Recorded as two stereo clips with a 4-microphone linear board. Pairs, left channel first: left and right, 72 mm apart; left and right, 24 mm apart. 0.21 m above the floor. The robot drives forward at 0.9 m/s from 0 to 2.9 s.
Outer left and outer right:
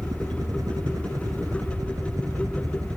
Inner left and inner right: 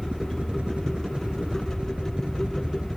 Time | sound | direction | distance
0.0 | a helicopter | 55° right (ahead or behind) | ?